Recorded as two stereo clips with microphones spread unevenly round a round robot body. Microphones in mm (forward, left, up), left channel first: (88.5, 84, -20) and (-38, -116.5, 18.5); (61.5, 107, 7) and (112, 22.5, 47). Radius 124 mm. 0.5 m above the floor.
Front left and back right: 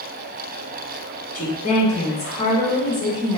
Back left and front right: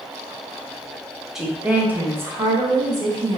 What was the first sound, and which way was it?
A woman speaking, 55° left.